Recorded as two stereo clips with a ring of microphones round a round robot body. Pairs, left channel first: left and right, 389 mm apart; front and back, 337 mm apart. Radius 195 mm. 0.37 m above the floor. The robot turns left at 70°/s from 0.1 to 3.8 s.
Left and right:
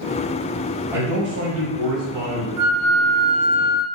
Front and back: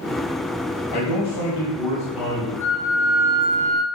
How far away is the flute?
About 0.6 m.